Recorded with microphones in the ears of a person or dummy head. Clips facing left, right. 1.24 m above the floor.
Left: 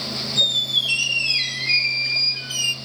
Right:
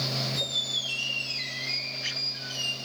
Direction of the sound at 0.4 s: 40° left (ahead or behind).